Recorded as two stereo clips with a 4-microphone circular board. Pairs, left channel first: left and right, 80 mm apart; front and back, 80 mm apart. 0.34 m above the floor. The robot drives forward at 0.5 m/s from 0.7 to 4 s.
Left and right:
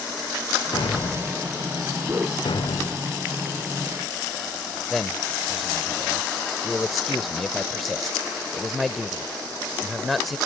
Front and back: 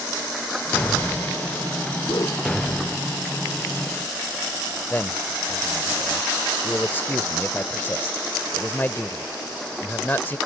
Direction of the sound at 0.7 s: 70° left.